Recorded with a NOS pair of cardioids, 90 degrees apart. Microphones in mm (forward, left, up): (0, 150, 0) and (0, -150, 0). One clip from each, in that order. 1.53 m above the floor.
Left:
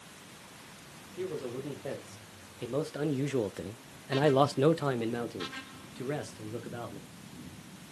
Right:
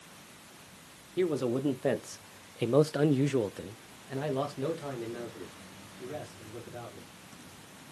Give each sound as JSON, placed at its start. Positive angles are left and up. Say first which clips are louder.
{"t": 1.2, "sound": "a man speaking", "louder": "right 7 dB", "azimuth_deg": -70, "distance_m": 1.4}